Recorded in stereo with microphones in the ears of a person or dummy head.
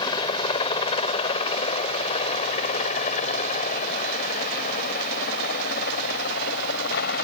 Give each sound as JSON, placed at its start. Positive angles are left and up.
{"t": 0.0, "sound": "a helicopter", "side_deg": 30}